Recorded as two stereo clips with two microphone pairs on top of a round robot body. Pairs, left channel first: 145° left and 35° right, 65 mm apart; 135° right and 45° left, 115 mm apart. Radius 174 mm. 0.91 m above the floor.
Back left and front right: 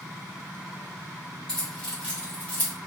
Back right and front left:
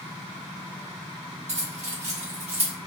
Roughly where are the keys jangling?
Ahead left.